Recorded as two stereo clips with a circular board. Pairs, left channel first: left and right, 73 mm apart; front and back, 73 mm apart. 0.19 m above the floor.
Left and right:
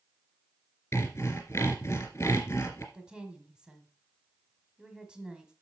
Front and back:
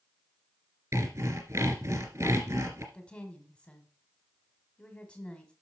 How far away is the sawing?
About 2.5 m.